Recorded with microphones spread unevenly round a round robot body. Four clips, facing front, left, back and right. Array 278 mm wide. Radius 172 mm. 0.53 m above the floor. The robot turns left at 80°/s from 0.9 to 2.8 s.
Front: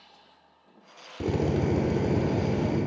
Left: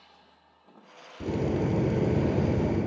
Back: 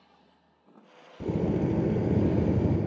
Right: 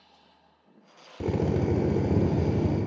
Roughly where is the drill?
Ahead right.